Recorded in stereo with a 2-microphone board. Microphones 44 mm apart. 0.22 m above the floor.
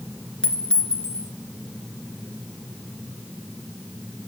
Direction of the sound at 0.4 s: 25° left (ahead or behind).